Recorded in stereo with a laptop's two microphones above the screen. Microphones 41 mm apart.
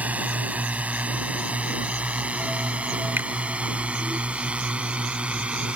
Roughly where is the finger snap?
Right.